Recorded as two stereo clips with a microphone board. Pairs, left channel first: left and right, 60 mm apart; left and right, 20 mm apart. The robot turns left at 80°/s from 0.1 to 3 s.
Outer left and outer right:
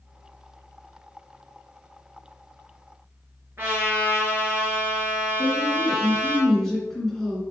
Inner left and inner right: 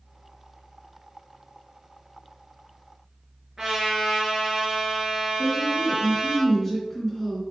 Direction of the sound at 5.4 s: Centre (ahead or behind).